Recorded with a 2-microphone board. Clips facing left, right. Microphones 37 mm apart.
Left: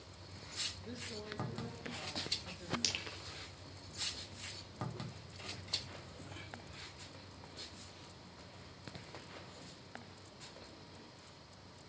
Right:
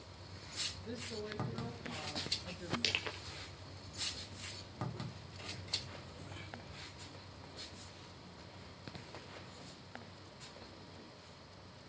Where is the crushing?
25° right (ahead or behind), 1.7 m.